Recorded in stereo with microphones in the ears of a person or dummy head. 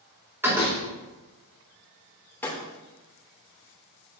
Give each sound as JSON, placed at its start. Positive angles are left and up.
{"t": 0.4, "sound": "a door slam", "side_deg": -10, "distance_m": 4.0}
{"t": 2.4, "sound": "breaking glass", "side_deg": 15, "distance_m": 2.5}